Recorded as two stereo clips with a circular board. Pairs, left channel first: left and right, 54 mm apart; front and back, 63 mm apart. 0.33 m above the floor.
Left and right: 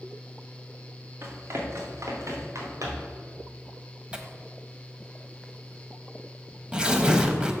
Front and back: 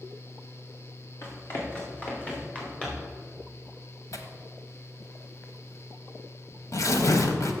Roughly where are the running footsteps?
Ahead right.